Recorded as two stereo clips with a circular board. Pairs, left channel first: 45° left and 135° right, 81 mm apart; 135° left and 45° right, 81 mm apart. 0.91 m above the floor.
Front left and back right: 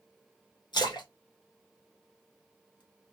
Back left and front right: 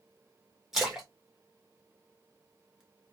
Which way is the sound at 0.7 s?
40° left.